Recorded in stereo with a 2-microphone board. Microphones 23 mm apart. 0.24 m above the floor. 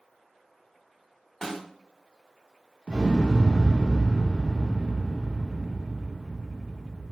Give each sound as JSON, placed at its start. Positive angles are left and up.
{"t": 1.4, "sound": "a snare drum", "side_deg": 15, "distance_m": 1.1}
{"t": 2.9, "sound": "an explosion", "side_deg": -50, "distance_m": 2.0}